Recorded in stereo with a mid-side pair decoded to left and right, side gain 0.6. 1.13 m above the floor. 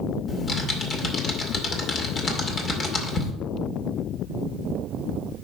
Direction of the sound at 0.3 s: 35° left.